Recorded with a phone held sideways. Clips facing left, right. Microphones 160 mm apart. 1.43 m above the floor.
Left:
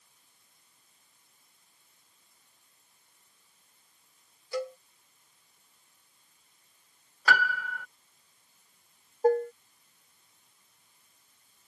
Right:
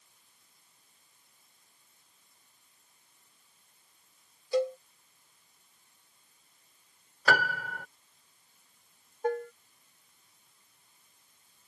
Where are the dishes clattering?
35° left (ahead or behind).